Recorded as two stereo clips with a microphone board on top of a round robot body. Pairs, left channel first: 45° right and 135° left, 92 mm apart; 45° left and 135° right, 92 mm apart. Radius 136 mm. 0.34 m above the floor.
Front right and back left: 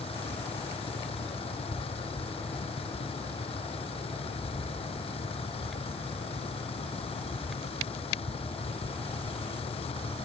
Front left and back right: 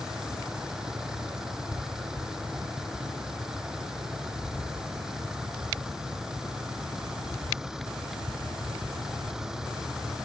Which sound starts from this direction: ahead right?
A vehicle, at 0.0 s.